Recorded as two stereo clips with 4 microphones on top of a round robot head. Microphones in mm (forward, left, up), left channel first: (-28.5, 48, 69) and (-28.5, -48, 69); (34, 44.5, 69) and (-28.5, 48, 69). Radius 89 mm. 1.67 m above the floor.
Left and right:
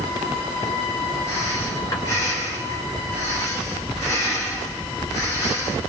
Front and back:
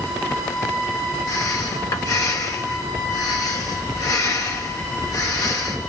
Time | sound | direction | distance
1.3 | breathing | 25° left | 3.5 m